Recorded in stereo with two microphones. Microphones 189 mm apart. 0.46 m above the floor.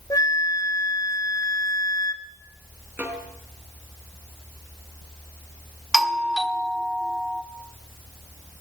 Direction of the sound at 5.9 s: Centre (ahead or behind).